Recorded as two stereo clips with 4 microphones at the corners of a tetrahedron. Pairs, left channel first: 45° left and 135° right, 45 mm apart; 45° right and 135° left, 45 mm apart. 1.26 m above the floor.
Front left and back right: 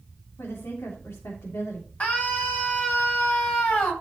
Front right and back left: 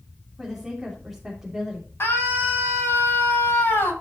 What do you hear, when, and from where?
0.4 s a woman speaking: 50° left, 3.5 m
2.0 s a scream: 15° right, 8 m